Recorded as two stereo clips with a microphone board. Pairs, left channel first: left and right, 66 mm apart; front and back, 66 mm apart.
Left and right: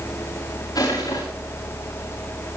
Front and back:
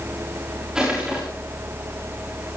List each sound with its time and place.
0.8 s crushing: 100° left, 8 m